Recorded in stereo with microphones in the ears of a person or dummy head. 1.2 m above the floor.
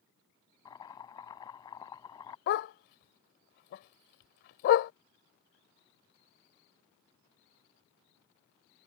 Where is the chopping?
20° left (ahead or behind).